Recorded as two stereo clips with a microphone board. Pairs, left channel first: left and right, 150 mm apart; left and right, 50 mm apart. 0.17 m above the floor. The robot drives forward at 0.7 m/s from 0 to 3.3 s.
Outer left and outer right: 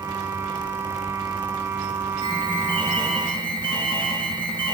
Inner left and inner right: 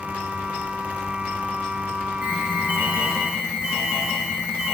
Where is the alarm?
35° right (ahead or behind), 6.5 m; by 4.7 s 30° right (ahead or behind), 7 m.